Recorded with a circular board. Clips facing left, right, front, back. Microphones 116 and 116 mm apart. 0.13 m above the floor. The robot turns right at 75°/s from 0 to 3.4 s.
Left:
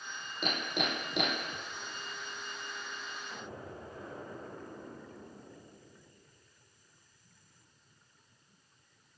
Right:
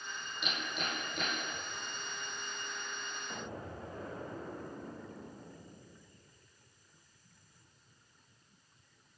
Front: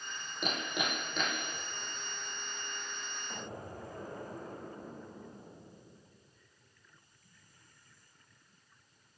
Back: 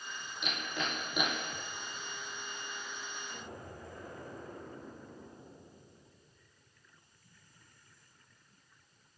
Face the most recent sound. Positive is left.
turn(degrees=-55)